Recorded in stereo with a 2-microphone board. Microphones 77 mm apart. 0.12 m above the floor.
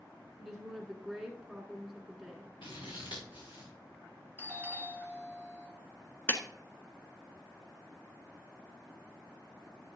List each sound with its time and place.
0.4 s a woman speaking: centre (ahead or behind), 1.2 m
2.6 s scissors: 85° left, 4.5 m
4.4 s a doorbell: 25° left (ahead or behind), 2 m
6.3 s a clap: 25° left (ahead or behind), 1.1 m